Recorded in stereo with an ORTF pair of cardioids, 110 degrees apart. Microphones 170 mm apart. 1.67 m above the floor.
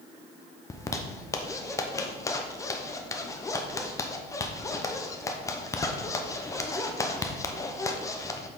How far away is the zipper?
About 0.8 m.